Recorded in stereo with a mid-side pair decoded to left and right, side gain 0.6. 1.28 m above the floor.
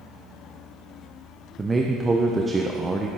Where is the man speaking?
25° right, 0.6 m.